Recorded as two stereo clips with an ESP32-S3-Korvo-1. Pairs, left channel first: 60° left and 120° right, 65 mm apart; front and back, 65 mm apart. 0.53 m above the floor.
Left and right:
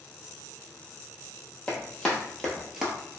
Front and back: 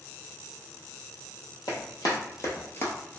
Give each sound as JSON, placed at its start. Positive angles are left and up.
{"t": 1.7, "sound": "running footsteps", "azimuth_deg": -15, "distance_m": 1.2}